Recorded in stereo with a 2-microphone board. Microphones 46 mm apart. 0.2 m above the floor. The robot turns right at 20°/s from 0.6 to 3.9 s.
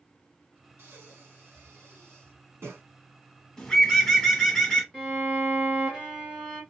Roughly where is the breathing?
Right.